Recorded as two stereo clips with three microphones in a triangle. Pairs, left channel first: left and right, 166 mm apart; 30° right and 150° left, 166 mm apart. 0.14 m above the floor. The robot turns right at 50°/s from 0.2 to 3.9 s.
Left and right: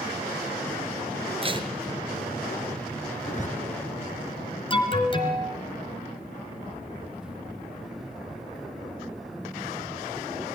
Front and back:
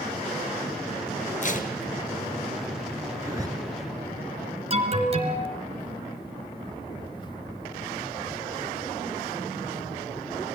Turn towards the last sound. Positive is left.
turn(degrees=125)